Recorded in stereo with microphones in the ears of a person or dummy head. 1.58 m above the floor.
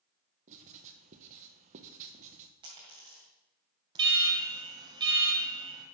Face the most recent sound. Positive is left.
turn(degrees=-30)  # may be behind; listen again after turning